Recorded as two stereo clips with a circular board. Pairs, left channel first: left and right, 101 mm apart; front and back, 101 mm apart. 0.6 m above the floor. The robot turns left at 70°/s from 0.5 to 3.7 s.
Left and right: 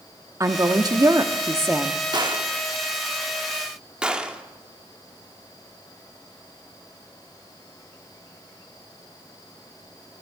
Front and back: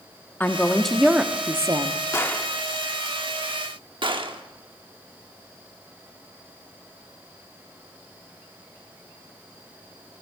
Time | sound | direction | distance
0.4 | a woman speaking | 60° right | 0.7 m
2.1 | a gunshot | 55° right | 0.9 m